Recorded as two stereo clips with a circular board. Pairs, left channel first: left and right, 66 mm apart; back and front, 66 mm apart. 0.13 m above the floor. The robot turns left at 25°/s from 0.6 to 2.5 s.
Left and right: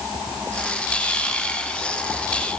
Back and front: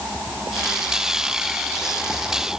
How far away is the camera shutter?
I don't hear a camera shutter.